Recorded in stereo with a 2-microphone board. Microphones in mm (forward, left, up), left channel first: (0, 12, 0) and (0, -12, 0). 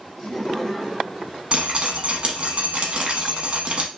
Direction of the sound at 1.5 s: 45° right (ahead or behind).